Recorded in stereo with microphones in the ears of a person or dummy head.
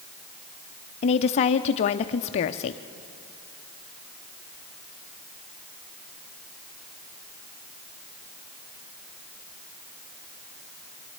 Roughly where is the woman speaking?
Left.